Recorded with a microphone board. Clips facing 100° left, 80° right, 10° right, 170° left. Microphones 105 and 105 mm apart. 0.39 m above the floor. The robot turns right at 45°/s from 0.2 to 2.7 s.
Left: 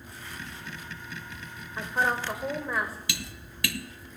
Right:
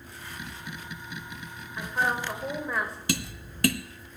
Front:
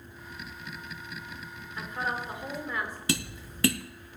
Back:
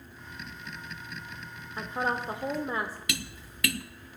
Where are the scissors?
I don't hear scissors.